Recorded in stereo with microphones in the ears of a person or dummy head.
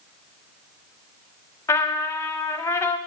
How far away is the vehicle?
I don't hear a vehicle.